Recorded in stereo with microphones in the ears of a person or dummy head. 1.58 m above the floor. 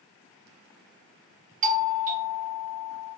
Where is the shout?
I don't hear a shout.